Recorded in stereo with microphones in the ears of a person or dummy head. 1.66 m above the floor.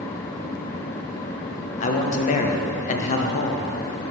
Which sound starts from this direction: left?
A man speaking, at 1.8 s.